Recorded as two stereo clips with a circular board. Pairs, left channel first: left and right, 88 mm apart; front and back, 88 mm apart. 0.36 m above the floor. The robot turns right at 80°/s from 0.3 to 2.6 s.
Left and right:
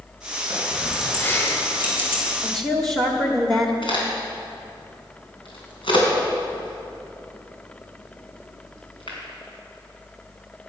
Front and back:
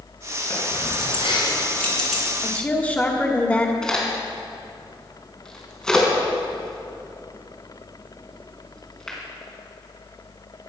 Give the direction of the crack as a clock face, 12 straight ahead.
9 o'clock.